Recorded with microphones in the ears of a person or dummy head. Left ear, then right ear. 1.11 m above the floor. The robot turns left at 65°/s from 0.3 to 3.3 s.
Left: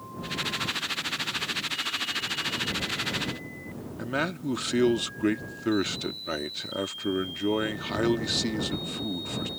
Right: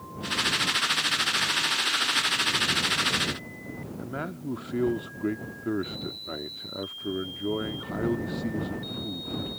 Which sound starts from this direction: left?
A man speaking, at 4.0 s.